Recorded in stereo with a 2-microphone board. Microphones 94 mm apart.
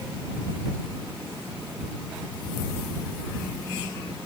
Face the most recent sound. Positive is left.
No sound to turn to.